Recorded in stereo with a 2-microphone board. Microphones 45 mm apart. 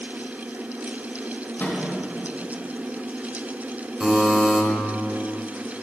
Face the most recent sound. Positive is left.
turn(degrees=-5)  # may be behind; listen again after turning